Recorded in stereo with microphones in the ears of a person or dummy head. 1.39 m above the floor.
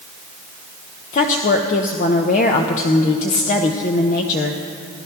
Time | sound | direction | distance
1.1 | a woman speaking | 40° left (ahead or behind) | 0.9 m